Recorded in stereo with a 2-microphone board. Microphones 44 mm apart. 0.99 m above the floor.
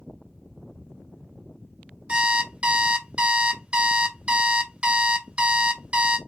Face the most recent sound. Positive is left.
turn(degrees=-25)  # may be behind; listen again after turning